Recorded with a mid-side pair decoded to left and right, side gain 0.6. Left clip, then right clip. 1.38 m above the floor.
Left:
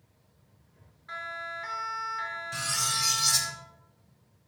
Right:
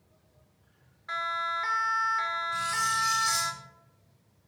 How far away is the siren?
About 3 m.